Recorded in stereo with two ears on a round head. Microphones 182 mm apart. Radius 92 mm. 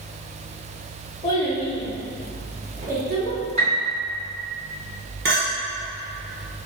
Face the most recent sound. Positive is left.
turn(degrees=-50)  # may be behind; listen again after turning